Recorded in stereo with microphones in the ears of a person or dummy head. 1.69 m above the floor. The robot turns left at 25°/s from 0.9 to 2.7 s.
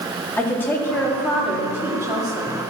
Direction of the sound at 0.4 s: 10° left.